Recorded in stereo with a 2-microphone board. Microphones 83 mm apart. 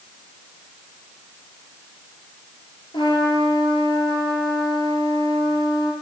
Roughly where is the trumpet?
Left.